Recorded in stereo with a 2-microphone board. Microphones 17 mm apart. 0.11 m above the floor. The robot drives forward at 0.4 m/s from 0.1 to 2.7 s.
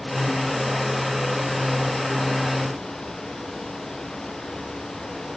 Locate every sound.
Only background noise.